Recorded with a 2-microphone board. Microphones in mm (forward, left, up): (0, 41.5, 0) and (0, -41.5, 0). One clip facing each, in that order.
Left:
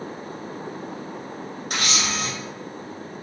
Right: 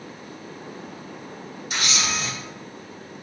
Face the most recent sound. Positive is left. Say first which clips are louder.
# even
turn(degrees=60)  # may be behind; listen again after turning